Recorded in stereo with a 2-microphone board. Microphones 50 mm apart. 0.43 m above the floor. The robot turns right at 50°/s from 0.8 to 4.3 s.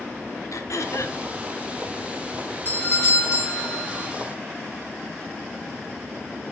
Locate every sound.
0.5 s throat clearing: 80° left, 0.9 m; by 1.2 s 70° left (ahead or behind), 0.9 m
2.6 s a doorbell: 45° left, 4 m; by 4.1 s 115° left, 4 m